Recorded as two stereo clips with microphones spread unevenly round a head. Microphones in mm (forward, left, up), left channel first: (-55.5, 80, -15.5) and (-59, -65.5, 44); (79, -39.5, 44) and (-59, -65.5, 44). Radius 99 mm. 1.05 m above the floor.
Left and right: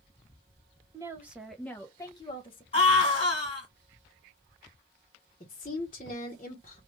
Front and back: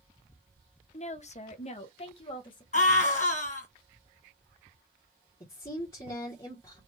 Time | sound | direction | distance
0.9 | a woman speaking | 5° right | 0.8 m
2.7 | a scream | 45° left | 1.9 m
5.4 | a woman speaking | 70° left | 1.0 m